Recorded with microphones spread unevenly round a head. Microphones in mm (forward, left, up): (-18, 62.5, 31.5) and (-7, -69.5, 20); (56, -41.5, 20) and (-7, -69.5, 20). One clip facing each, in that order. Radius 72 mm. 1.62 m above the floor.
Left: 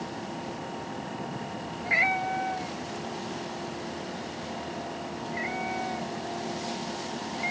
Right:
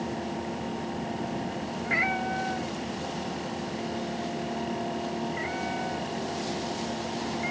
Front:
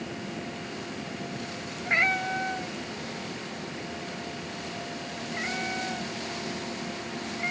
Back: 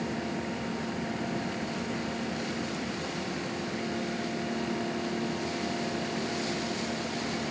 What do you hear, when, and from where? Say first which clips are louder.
1.8 s a cat meowing: left 2 dB, front 7 dB; 30° left